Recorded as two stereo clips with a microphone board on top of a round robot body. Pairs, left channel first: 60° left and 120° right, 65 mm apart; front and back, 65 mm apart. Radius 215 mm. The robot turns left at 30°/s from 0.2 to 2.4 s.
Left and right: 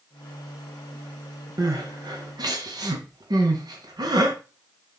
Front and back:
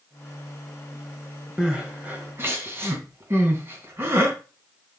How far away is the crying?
About 1.6 m.